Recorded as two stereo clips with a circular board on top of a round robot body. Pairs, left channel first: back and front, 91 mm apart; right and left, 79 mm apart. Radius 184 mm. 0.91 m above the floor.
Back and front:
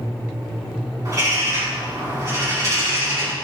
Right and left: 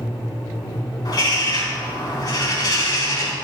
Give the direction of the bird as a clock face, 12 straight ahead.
2 o'clock.